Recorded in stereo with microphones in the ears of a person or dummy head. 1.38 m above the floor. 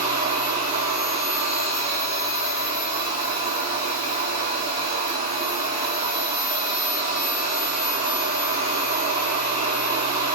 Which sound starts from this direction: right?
A machine running, at 0.0 s.